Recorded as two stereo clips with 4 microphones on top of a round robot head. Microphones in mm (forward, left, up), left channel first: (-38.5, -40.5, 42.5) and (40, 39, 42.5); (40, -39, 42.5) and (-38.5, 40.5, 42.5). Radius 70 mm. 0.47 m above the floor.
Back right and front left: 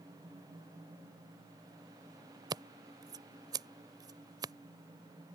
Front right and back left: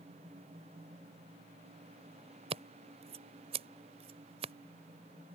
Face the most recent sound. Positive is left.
turn(degrees=100)